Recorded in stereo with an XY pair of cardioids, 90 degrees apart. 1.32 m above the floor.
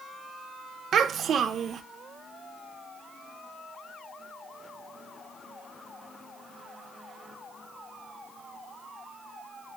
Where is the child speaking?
65° right, 0.6 m.